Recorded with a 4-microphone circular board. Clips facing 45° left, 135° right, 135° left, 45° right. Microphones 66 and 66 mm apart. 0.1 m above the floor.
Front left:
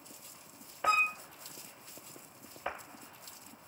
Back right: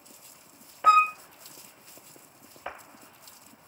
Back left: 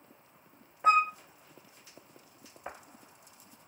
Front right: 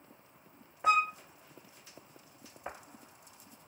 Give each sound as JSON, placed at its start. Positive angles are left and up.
{"t": 0.8, "sound": "a flute", "azimuth_deg": -170, "distance_m": 0.9}